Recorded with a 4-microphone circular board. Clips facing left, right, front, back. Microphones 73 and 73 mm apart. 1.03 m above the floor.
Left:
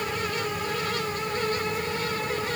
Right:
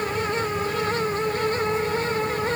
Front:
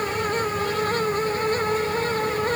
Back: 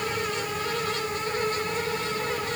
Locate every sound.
Only background noise.